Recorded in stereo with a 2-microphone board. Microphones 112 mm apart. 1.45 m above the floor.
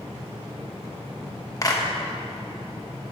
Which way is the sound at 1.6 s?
30° left (ahead or behind).